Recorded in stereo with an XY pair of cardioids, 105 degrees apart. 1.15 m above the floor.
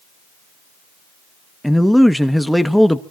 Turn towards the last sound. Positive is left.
turn(degrees=5)